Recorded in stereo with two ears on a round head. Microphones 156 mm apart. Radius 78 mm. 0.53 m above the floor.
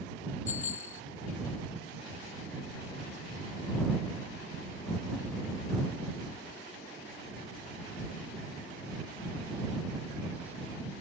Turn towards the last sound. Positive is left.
turn(degrees=45)  # may be behind; listen again after turning